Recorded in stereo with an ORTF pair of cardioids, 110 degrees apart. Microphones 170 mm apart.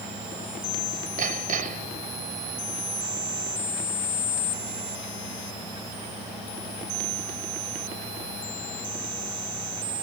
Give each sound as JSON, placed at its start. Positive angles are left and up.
{"t": 1.2, "sound": "hammering", "azimuth_deg": -55}